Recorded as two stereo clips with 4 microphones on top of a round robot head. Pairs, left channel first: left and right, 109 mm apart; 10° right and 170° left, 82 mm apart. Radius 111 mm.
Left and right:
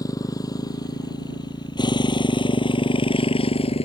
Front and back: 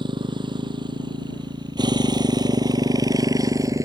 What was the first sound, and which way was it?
A motorcycle, 150° left.